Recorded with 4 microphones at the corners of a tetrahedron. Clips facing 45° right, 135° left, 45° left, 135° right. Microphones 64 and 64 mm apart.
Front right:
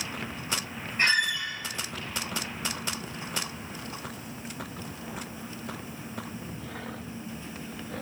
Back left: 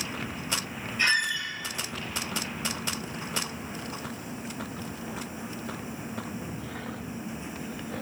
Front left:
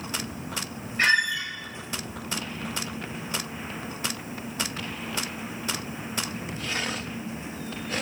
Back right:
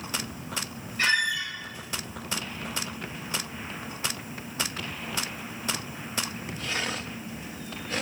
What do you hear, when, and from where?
1.0 s a squeak: 5° right, 0.8 m